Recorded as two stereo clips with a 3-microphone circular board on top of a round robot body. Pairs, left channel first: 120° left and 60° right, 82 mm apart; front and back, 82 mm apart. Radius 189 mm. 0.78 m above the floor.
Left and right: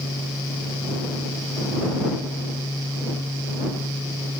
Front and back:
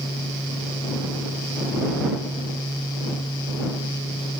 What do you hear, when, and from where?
Only background noise.